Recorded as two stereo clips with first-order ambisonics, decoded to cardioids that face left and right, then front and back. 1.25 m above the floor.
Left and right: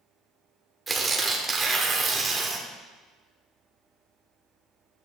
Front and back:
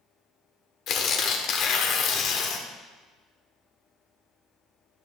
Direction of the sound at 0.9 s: 20° right.